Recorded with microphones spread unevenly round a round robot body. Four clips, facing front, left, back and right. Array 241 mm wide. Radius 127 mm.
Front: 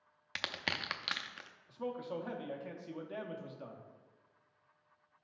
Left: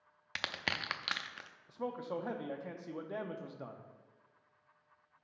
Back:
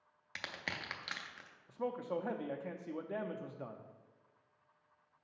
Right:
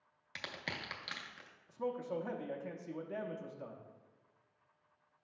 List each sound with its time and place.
0.3 s crushing: 65° left, 0.5 m
1.7 s a man speaking: 155° left, 0.6 m